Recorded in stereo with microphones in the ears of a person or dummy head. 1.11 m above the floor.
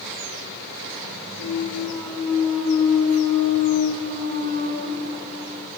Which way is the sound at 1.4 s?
55° right (ahead or behind).